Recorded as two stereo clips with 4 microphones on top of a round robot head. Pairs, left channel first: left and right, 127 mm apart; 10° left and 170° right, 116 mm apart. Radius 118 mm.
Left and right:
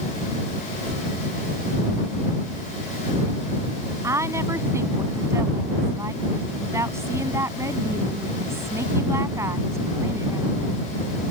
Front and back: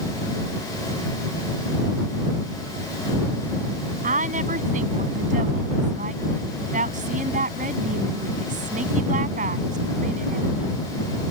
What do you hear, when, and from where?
4.0 s a woman speaking: 165° right